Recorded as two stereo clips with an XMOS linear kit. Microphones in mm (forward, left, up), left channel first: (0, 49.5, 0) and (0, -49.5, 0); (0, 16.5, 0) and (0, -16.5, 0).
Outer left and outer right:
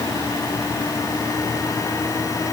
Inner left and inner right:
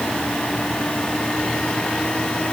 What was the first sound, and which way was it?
Only background noise.